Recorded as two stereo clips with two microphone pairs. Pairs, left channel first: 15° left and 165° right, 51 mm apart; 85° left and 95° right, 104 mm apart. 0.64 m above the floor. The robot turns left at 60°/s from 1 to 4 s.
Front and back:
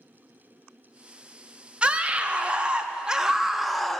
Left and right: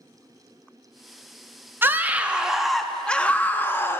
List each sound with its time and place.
1.8 s a scream: 140° right, 0.6 m; by 4.0 s 90° left, 0.6 m